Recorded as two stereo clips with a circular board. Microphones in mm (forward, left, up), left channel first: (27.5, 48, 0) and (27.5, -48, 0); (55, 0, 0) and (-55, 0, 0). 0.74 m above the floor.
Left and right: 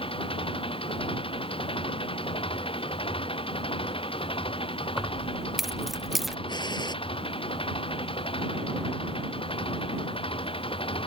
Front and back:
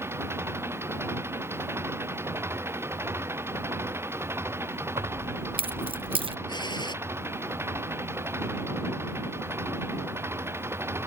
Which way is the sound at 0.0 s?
110° left.